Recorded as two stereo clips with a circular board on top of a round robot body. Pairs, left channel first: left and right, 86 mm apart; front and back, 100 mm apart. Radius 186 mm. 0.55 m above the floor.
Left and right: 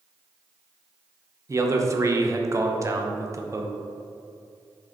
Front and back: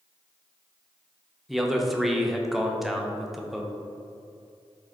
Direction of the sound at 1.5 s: 90° right.